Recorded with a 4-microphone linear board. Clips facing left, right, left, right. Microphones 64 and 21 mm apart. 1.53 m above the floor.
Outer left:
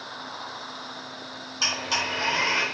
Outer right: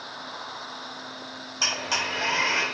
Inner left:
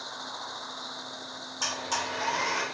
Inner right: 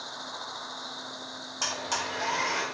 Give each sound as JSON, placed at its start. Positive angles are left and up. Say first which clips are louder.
{"t": 1.6, "sound": "a blender", "louder": "even, even", "side_deg": -20, "distance_m": 1.1}